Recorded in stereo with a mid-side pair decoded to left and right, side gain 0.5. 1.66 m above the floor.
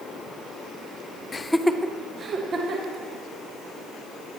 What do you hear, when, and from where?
1.3 s laughter: 35° left, 0.5 m; by 3.0 s 50° right, 1.7 m